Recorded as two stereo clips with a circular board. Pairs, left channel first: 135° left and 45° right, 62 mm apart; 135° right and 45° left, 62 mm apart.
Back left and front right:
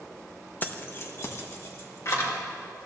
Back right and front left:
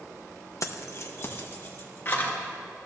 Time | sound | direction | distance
0.6 | keys jangling | 165° right | 0.7 m